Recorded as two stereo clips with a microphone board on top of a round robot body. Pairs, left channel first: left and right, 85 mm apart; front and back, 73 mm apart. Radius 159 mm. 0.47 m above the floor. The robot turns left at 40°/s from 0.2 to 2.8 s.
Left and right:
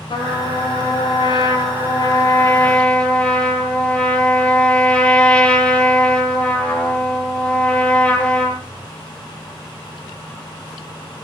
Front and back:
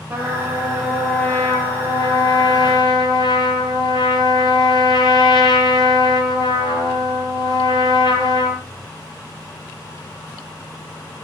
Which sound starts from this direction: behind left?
A trumpet, at 0.1 s.